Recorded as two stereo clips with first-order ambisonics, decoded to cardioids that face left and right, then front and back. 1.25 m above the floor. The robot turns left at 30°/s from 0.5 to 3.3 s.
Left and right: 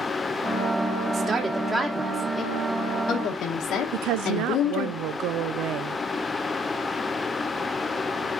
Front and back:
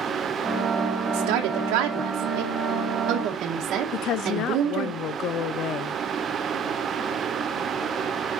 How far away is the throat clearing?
No throat clearing in this recording.